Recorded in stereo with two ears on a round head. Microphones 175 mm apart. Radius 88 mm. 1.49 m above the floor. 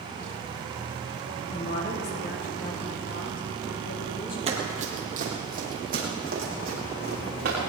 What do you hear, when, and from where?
1.5 s a woman speaking: 60° left (ahead or behind), 2.5 m; by 4.4 s 65° left (ahead or behind), 4 m
4.5 s running footsteps: 30° right (ahead or behind), 2.5 m; by 7.7 s 50° right (ahead or behind), 7.5 m